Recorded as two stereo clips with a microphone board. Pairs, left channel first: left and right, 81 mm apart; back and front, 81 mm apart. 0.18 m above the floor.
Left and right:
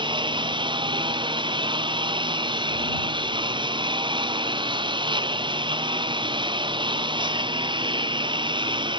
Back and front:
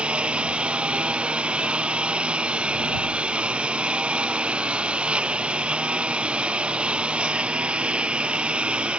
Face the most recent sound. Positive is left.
turn(degrees=-75)